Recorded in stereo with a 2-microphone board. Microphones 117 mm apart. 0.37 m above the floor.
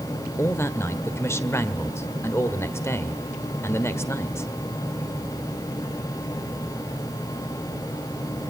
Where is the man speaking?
25° left (ahead or behind), 1.4 m.